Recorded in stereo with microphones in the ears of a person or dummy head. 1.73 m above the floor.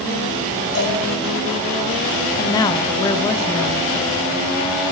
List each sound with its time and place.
0.8 s a cowbell: 75° left (ahead or behind), 4.5 m
2.4 s a woman speaking: 15° left (ahead or behind), 0.7 m